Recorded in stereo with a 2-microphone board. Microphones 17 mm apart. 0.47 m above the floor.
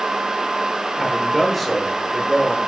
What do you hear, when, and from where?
1.0 s a man speaking: 5° left (ahead or behind), 6.5 m